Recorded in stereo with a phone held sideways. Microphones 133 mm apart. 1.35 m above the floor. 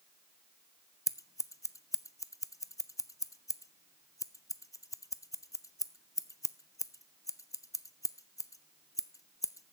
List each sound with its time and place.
1.1 s scissors: 25° left (ahead or behind), 0.5 m